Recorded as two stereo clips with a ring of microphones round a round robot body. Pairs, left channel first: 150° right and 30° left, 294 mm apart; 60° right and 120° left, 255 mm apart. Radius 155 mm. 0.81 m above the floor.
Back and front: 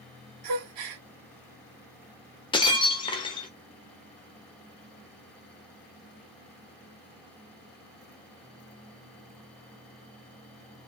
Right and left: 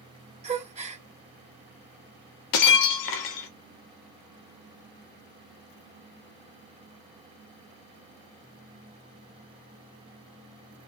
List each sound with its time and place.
0.4 s a gasp: 55° left, 0.9 m
2.5 s breaking glass: 75° right, 0.7 m